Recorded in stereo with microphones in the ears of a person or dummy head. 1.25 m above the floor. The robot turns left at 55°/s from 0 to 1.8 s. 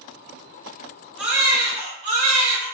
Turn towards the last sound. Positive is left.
turn(degrees=-40)